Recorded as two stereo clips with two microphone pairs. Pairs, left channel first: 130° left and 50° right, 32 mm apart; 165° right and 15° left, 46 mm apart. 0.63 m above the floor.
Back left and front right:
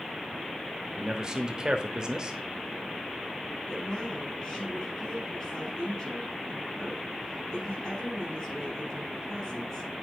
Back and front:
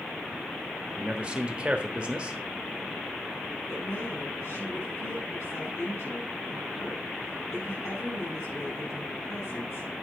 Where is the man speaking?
15° right, 1.0 m.